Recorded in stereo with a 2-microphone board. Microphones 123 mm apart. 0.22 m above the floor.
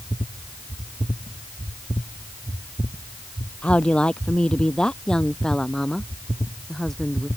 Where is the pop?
I don't hear a pop.